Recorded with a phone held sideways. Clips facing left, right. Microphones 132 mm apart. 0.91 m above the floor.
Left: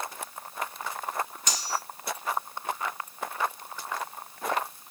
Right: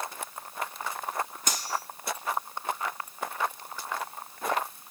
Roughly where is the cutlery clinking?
Right.